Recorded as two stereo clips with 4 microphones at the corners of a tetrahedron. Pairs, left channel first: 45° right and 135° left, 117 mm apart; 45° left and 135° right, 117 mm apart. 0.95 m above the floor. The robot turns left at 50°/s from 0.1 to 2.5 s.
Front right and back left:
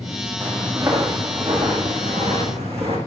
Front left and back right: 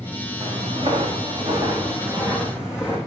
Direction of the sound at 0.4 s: 140° right.